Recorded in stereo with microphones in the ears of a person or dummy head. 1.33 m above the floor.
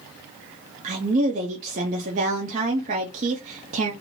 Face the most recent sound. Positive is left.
turn(degrees=-35)  # may be behind; listen again after turning